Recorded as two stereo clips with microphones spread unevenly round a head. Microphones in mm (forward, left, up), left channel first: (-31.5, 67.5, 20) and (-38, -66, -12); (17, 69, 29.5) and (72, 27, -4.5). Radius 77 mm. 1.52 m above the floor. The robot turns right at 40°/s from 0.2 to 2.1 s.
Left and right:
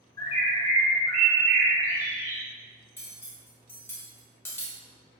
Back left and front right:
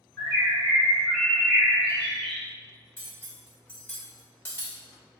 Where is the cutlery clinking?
140° left, 1.2 m.